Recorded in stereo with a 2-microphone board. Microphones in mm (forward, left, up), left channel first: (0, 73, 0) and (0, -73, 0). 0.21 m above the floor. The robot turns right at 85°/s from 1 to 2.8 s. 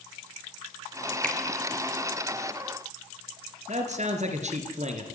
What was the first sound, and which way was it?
A finger snap, 5° left (ahead or behind).